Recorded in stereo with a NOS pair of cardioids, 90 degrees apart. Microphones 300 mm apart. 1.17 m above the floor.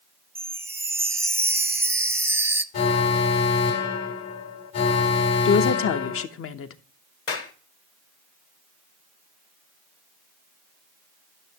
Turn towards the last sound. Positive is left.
turn(degrees=45)